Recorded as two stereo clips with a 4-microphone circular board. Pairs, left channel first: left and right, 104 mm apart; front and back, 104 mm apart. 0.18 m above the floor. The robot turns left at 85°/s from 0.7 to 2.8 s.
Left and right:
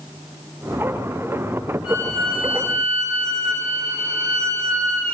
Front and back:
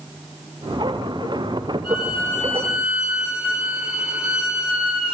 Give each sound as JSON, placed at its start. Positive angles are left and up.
{"t": 1.8, "sound": "a violin", "azimuth_deg": -20, "distance_m": 3.0}